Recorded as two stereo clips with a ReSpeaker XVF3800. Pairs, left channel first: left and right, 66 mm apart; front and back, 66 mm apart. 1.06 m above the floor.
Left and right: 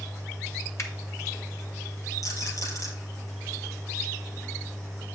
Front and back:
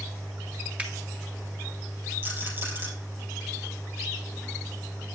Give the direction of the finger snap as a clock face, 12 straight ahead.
8 o'clock.